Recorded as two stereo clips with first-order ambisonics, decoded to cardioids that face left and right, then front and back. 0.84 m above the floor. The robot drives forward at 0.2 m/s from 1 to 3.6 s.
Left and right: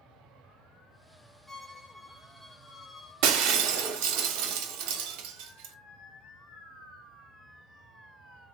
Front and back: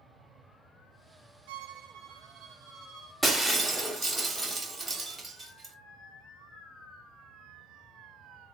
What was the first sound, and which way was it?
A violin, 175° left.